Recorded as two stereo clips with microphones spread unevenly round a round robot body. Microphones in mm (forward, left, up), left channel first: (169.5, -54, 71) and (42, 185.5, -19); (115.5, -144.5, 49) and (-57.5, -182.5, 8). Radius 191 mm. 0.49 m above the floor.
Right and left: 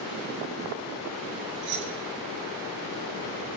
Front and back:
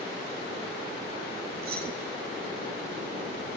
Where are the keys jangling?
160° left, 2 m.